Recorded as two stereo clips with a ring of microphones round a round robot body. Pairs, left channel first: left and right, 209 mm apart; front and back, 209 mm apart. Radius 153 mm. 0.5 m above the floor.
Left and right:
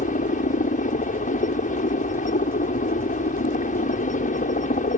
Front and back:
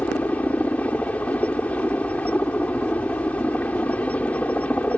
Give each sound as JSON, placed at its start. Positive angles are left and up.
{"t": 0.0, "sound": "a helicopter", "azimuth_deg": 80}